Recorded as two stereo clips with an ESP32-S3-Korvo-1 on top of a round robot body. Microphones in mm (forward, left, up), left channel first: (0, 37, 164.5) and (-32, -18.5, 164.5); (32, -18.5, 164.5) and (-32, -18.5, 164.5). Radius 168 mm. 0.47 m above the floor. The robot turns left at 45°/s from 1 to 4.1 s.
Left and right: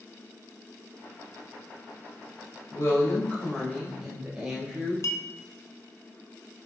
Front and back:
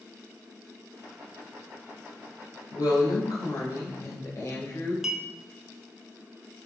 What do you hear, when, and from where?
2.7 s a woman speaking: 25° left, 2.5 m; by 4.9 s 40° right, 2.5 m
5.0 s a clink: 95° left, 0.9 m